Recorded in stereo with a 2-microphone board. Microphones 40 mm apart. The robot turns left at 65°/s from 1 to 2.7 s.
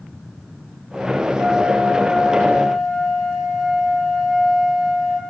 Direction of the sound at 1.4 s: 95° right.